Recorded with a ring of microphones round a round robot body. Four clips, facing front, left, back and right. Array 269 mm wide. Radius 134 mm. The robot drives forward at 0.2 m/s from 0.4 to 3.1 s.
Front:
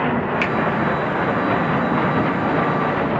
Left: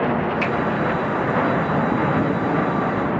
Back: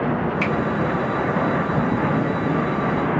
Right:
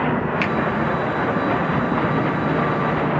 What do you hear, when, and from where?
0.4 s a finger snap: 50° right, 0.5 m; by 0.5 s 55° right, 0.5 m